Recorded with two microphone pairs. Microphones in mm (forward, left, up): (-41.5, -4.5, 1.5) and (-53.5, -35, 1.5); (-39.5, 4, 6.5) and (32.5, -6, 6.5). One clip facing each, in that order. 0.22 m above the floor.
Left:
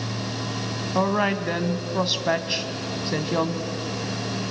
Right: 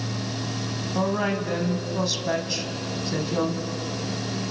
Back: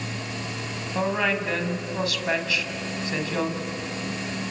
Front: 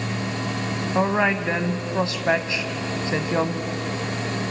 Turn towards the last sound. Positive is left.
turn(degrees=35)